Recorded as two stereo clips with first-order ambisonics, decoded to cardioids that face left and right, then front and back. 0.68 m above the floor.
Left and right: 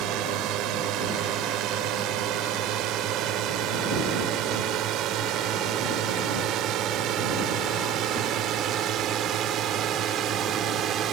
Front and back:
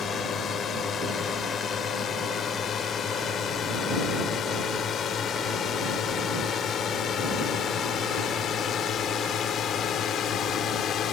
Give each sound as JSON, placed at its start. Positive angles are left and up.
{"t": 0.0, "sound": "a drone", "azimuth_deg": -60}